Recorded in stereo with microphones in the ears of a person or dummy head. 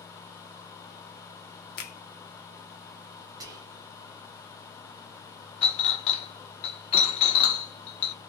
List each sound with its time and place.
1.8 s a finger snap: 60° left (ahead or behind), 0.8 m
3.4 s whispering: 25° right (ahead or behind), 0.7 m
5.6 s a clink: 35° left (ahead or behind), 0.6 m